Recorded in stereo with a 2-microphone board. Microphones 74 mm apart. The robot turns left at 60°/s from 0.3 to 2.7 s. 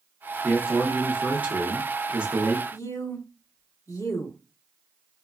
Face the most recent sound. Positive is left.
turn(degrees=45)  # may be behind; listen again after turning